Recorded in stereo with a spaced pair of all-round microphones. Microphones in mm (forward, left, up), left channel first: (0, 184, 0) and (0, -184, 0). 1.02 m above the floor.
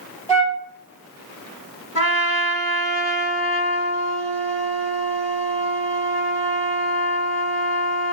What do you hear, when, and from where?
0.3 s a flute: 20° left (ahead or behind), 1.5 m
1.9 s a trumpet: 40° left (ahead or behind), 1.2 m